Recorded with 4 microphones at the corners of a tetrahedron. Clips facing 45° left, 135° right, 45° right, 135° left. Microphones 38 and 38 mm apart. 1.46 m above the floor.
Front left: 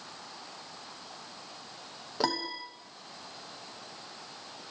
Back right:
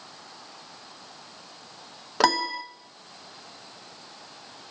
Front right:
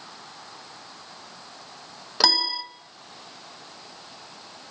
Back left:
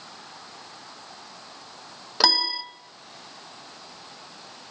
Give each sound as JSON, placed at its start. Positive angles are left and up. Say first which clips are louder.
{"t": 2.2, "sound": "a piano", "louder": "back right 9 dB, even", "azimuth_deg": -140, "distance_m": 1.2}